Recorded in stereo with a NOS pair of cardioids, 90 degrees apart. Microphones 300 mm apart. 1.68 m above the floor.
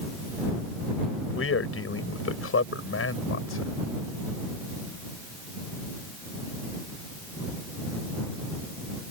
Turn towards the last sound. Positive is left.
turn(degrees=45)